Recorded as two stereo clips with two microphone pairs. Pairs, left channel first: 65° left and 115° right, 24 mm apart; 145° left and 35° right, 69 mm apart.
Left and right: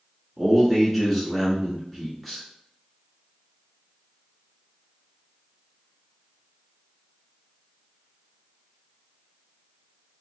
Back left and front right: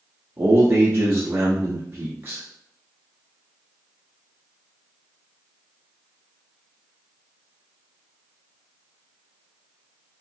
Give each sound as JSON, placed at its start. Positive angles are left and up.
{"t": 0.4, "sound": "a man speaking", "azimuth_deg": -35, "distance_m": 1.3}